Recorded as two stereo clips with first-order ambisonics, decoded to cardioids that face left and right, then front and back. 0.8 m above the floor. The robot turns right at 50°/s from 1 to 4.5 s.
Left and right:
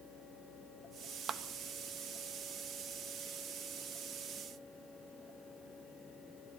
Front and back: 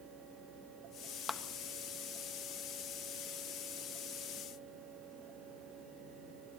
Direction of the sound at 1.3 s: 60° right.